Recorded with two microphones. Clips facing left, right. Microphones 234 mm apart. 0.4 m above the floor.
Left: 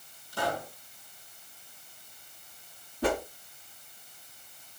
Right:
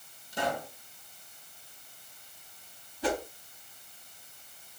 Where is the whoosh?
60° left (ahead or behind), 1.1 m.